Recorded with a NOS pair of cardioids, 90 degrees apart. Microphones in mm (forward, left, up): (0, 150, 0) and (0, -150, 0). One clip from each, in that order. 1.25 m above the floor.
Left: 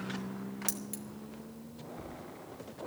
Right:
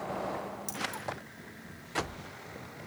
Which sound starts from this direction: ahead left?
Keys jangling, at 0.7 s.